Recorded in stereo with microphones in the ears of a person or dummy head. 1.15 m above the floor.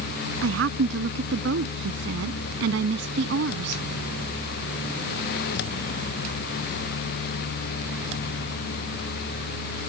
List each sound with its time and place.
0.4 s a woman speaking: 80° right; by 3.8 s 70° right (ahead or behind)